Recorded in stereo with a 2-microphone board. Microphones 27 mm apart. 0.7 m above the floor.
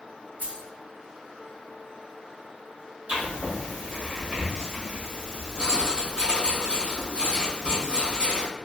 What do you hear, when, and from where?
0.4 s keys jangling: 85° right, 1.5 m
3.1 s writing: 60° right (ahead or behind), 2.0 m